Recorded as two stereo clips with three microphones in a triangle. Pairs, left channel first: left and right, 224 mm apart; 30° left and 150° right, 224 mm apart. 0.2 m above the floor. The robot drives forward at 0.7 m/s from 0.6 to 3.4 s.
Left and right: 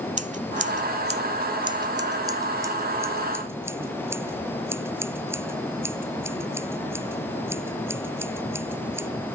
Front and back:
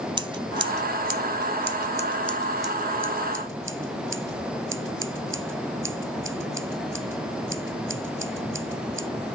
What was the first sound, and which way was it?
Scissors, 100° right.